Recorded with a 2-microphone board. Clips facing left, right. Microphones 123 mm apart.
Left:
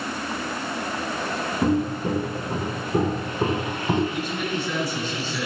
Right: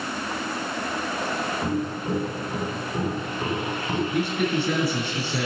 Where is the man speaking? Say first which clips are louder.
Right 4 dB; 55° right (ahead or behind), 4.5 m.